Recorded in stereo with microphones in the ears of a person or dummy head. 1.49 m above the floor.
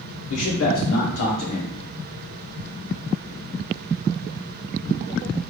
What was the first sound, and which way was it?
A man speaking, 60° left (ahead or behind).